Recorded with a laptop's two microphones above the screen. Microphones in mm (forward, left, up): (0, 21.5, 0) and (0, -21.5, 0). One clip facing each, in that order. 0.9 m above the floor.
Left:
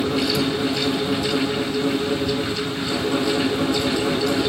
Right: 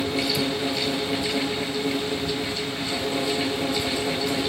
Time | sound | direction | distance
0.0 | a fan | 70° left (ahead or behind) | 3.5 m